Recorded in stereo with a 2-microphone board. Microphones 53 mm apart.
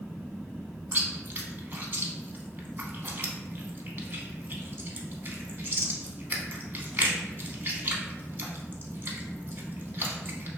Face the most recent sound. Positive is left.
turn(degrees=-40)  # may be behind; listen again after turning